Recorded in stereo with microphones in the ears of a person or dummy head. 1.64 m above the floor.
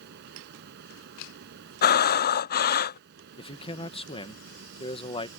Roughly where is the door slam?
No door slam in this recording.